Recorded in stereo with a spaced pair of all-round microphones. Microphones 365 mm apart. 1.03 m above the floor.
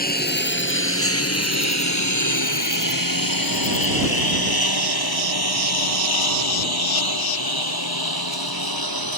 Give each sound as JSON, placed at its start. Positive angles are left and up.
{"t": 0.0, "sound": "a lawn mower", "side_deg": 25}